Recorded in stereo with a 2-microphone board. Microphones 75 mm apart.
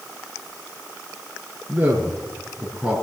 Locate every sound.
1.7 s a man speaking: 20° right (ahead or behind), 4.5 m; by 3.0 s 5° right (ahead or behind), 4.5 m